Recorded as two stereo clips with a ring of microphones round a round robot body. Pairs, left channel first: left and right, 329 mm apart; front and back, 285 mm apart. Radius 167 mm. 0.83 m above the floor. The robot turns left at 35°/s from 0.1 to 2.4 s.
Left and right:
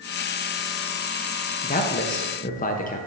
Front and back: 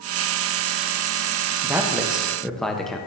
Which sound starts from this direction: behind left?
A man speaking, at 1.6 s.